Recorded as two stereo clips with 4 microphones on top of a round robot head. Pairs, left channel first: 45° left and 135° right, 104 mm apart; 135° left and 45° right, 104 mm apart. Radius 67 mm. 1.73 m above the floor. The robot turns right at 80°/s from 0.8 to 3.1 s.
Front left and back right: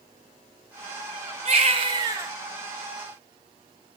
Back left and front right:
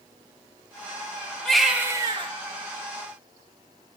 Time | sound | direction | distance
1.4 | a baby crying | 145° right | 0.6 m